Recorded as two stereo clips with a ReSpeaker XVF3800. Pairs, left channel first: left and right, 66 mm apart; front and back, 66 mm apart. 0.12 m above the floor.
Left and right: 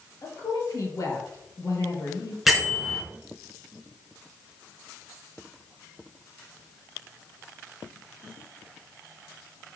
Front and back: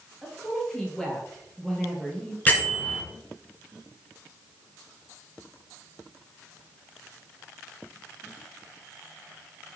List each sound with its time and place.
0.2 s a woman speaking: 80° left, 2 m
2.5 s a bell: 10° right, 1.7 m